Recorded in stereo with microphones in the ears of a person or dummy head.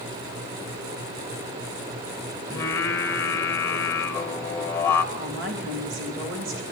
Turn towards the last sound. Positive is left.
turn(degrees=-70)  # may be behind; listen again after turning